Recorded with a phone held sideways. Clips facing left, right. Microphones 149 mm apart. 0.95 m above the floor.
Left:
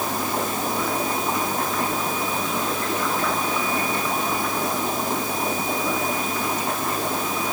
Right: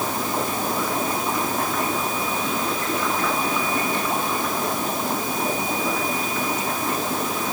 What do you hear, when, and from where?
Only background noise.